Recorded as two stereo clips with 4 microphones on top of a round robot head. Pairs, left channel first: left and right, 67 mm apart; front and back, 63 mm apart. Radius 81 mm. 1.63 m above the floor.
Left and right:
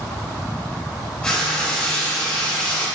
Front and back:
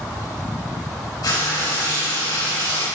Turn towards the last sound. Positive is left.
turn(degrees=10)